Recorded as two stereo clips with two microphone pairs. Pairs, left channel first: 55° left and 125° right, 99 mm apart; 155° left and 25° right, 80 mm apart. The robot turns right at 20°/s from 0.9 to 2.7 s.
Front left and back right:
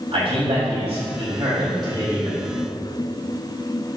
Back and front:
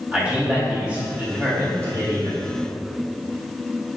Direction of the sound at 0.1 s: 100° right.